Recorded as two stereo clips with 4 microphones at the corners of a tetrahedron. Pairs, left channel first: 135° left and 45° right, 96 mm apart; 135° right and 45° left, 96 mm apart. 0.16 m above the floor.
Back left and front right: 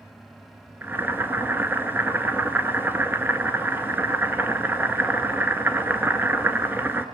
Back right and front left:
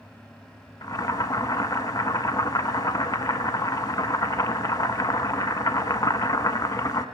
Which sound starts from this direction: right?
Boiling, at 0.8 s.